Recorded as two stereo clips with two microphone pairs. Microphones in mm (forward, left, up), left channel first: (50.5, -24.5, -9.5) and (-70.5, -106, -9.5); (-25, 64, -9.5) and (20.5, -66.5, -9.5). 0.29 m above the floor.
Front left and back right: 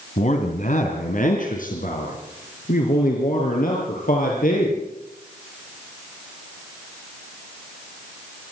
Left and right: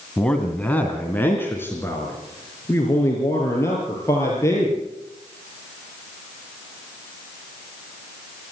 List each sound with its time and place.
0.2 s a man speaking: 25° left, 2 m; by 4.8 s 40° left, 7 m